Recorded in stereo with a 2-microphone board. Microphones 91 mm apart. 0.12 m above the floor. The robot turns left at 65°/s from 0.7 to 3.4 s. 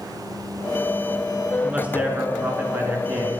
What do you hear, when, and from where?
1.6 s a man speaking: 10° right (ahead or behind), 1.1 m; by 3.3 s 15° right (ahead or behind), 1.1 m